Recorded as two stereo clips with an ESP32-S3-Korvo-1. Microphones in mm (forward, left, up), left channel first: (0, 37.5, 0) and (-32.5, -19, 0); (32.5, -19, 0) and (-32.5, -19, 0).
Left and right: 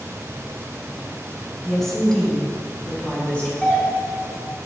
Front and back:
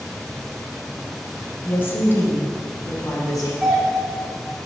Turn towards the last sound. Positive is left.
turn(degrees=100)